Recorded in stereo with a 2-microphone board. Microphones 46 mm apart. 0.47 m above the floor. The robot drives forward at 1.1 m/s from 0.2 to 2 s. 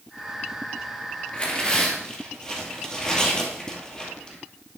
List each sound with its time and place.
1.3 s tearing paper: 25° left (ahead or behind), 1.8 m; by 4.4 s 20° left (ahead or behind), 2.5 m